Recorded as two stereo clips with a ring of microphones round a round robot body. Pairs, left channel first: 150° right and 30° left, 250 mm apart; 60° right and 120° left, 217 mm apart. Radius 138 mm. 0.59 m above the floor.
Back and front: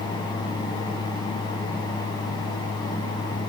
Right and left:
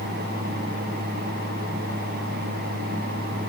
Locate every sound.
Only background noise.